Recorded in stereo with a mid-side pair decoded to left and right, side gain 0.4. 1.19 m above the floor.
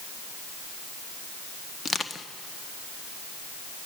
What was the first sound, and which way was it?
Crushing, 40° left.